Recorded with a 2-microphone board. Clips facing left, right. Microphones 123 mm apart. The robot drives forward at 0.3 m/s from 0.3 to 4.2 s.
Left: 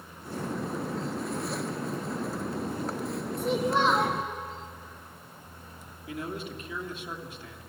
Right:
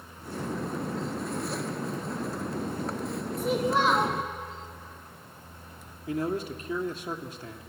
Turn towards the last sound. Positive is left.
turn(degrees=-40)  # may be behind; listen again after turning